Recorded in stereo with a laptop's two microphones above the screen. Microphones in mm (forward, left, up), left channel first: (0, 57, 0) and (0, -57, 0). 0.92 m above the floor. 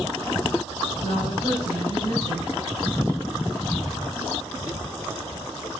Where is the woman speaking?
45° right (ahead or behind), 4.5 m.